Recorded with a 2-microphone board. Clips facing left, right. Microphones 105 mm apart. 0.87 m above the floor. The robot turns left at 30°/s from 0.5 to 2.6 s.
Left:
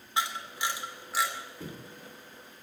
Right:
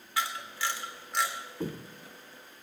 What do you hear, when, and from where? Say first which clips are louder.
0.2 s a camera shutter: left 1 dB; 25° left (ahead or behind), 3 m; by 1.3 s centre (ahead or behind), 3 m
1.6 s footsteps: right 6 dB; 40° right (ahead or behind), 1.3 m